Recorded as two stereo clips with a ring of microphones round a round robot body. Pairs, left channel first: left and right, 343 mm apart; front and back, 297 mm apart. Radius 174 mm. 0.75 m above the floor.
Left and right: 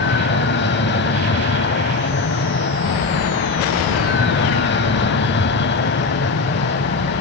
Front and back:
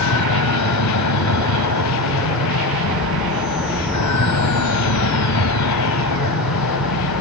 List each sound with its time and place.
0.0 s an aircraft: 30° left